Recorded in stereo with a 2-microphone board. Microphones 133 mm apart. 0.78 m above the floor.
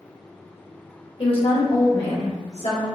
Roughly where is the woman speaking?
Left.